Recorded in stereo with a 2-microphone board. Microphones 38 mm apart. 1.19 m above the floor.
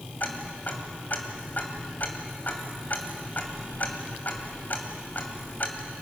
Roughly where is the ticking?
Left.